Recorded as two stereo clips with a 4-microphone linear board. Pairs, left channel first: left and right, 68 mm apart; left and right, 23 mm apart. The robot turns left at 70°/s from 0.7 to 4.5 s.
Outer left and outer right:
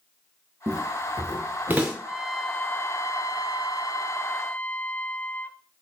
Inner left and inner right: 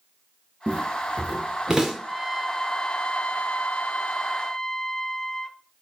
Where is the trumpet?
165° right, 0.8 m; by 5.6 s 25° left, 0.8 m.